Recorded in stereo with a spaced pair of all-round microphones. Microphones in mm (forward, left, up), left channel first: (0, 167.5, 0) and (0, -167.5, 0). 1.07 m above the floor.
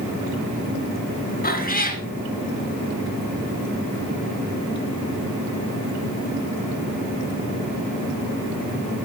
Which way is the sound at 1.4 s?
25° left (ahead or behind).